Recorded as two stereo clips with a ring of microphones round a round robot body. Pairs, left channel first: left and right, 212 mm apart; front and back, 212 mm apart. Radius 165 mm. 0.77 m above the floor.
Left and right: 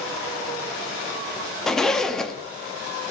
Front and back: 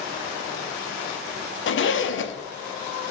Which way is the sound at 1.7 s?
Straight ahead.